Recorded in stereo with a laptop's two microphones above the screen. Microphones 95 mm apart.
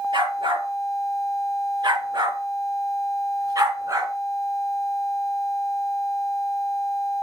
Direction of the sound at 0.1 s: 60° right (ahead or behind).